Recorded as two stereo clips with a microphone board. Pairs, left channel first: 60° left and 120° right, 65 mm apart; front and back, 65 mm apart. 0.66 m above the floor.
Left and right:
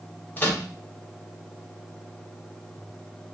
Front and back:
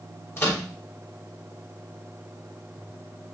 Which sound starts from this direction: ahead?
A microwave, at 0.4 s.